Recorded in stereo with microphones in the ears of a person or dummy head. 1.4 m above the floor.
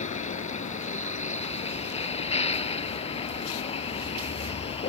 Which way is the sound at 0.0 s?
35° left (ahead or behind).